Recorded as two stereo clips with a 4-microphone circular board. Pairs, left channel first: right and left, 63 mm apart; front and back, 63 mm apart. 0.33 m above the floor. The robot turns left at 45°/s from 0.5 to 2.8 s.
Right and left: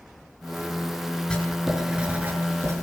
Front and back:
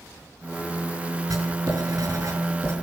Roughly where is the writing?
Behind.